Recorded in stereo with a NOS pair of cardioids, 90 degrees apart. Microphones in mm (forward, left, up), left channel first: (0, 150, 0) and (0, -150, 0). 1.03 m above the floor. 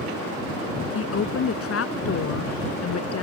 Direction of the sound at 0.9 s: 50° left.